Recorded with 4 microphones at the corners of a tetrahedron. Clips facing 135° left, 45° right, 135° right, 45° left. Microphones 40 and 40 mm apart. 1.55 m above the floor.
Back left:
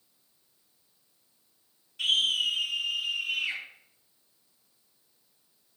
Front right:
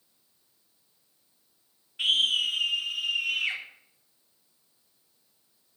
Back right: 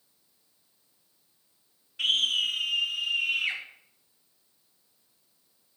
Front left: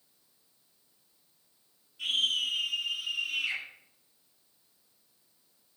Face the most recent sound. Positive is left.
turn(degrees=-85)